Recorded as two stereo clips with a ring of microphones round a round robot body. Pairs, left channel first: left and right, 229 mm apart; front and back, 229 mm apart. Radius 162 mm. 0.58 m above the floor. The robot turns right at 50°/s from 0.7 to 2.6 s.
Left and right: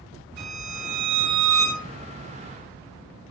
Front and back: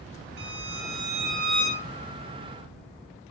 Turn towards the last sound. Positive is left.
turn(degrees=-25)